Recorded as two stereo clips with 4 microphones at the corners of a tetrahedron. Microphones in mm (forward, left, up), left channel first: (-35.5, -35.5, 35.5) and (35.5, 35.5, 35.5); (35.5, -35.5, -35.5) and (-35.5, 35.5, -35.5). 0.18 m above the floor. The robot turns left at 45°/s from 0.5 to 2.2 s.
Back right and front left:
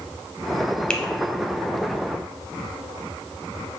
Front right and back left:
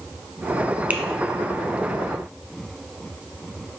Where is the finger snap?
165° left, 0.8 m; by 1.0 s 160° left, 0.8 m.